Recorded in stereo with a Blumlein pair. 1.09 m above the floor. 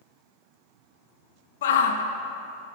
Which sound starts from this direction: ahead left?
A shout, at 1.6 s.